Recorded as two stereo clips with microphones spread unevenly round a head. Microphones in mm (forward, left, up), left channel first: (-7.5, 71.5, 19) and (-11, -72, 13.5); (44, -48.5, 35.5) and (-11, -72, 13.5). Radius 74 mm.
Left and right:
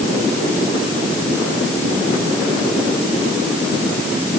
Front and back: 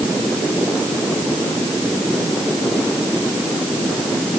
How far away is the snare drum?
I don't hear a snare drum.